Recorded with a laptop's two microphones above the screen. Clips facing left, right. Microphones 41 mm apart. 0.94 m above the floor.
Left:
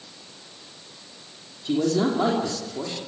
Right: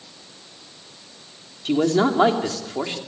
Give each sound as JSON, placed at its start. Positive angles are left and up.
{"t": 1.6, "sound": "a man speaking", "side_deg": -75, "distance_m": 3.0}